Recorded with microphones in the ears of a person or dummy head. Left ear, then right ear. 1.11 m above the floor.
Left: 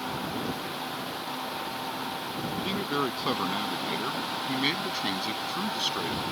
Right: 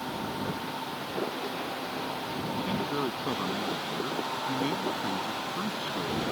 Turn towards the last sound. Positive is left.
turn(degrees=75)  # may be behind; listen again after turning